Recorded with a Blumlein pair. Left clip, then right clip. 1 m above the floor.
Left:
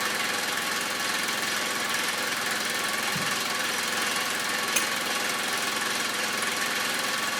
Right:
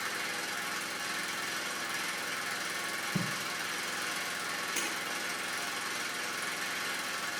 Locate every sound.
0.0 s an engine running: 60° left, 0.9 m
3.1 s tape being pulled: 10° right, 1.0 m
4.8 s breaking glass: 35° left, 1.9 m